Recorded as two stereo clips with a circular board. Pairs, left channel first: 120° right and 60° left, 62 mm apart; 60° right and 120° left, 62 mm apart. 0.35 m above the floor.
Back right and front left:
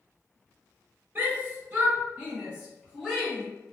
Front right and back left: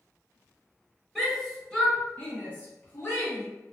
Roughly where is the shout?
Ahead left.